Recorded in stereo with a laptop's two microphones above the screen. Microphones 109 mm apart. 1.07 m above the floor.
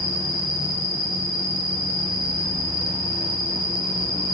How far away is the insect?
About 1.5 m.